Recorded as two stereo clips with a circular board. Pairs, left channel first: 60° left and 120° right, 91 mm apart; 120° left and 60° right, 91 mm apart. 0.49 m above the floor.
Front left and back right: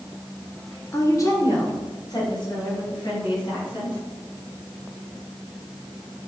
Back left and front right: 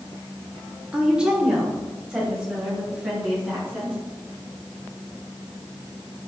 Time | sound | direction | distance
0.9 | a woman speaking | 15° left | 1.4 m